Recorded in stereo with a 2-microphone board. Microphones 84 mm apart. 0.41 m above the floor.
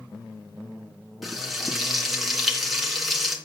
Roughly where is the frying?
Centre.